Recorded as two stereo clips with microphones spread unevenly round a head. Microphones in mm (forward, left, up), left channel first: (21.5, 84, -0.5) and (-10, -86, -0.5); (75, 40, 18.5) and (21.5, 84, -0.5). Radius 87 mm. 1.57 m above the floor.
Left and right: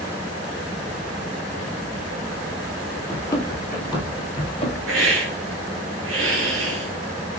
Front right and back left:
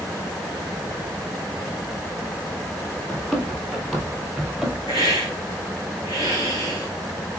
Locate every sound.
3.1 s running footsteps: 5° left, 1.9 m; by 4.8 s 40° left, 2 m
4.9 s a hiss: 95° right, 1.4 m